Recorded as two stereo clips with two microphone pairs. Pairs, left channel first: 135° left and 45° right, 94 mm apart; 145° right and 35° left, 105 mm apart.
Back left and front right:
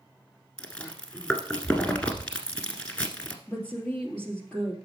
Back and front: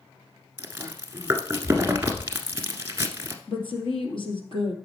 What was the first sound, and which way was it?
Chewing, 70° left.